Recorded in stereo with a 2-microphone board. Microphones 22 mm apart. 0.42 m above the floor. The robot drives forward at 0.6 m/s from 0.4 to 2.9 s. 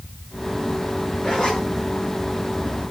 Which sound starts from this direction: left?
A zipper, at 1.2 s.